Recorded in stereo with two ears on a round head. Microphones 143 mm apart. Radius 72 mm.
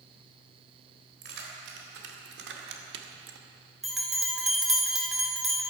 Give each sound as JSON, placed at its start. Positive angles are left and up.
{"t": 1.2, "sound": "keys jangling", "side_deg": -80, "distance_m": 3.5}
{"t": 3.8, "sound": "a bell", "side_deg": 0, "distance_m": 2.5}